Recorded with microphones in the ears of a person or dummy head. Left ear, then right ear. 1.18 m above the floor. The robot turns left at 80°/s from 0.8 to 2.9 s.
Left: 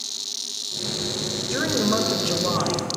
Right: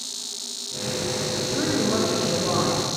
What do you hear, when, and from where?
1.5 s a woman speaking: 90° left, 0.8 m; by 2.9 s 20° right, 0.8 m